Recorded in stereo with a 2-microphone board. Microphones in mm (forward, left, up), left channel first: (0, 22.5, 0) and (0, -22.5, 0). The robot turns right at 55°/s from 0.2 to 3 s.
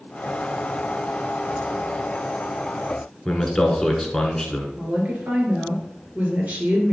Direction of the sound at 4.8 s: 35° right (ahead or behind).